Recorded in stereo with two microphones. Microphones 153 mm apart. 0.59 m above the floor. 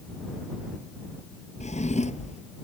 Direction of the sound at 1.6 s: 50° left (ahead or behind).